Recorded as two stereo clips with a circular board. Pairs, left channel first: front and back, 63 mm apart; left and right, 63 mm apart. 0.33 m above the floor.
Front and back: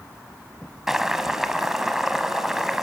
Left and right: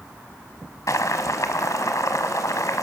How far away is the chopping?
No chopping in this recording.